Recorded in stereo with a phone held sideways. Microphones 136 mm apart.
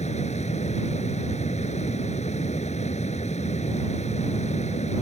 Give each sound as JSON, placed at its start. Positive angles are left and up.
{"t": 0.0, "sound": "a fan", "side_deg": 55}